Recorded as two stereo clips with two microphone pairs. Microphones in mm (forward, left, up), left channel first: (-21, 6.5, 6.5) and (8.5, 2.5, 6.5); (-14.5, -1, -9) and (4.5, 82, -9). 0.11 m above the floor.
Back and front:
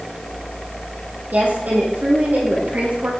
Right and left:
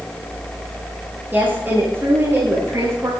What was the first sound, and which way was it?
A woman speaking, 10° left.